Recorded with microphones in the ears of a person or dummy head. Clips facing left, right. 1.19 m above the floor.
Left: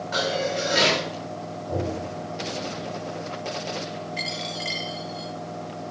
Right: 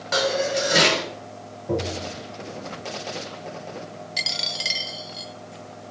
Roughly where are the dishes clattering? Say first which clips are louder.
Right 3 dB; right.